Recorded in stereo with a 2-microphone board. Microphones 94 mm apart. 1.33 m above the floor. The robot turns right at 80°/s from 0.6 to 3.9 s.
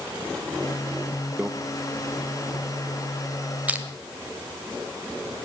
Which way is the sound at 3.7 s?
15° right (ahead or behind).